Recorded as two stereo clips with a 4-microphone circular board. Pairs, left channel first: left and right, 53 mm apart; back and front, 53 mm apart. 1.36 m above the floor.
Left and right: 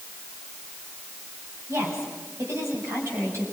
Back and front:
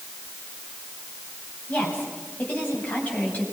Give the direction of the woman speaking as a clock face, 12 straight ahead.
4 o'clock.